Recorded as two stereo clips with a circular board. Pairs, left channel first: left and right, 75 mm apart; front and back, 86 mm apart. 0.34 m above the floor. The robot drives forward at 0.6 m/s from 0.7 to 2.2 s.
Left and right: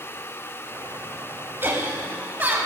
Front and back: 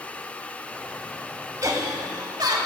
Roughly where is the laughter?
Behind right.